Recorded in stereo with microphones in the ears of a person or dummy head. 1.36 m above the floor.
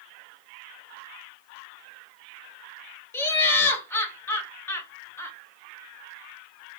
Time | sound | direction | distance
3.1 | laughter | 10° left (ahead or behind) | 0.8 m